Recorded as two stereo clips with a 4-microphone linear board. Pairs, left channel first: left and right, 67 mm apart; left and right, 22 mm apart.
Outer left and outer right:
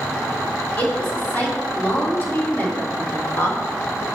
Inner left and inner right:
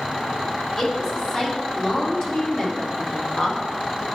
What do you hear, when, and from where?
0.8 s a woman speaking: 30° left (ahead or behind), 3 m; by 4.0 s 35° left (ahead or behind), 1.1 m